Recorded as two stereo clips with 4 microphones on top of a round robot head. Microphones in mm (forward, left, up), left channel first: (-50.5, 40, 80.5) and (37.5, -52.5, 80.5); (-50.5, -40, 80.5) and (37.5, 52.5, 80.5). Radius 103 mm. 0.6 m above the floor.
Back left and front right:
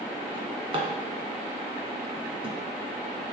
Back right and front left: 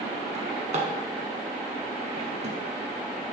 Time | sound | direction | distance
0.3 | a drawer | 5° left | 1.5 m